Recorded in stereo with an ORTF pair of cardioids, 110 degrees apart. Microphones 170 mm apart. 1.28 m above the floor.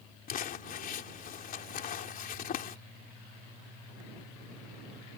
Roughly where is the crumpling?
Ahead left.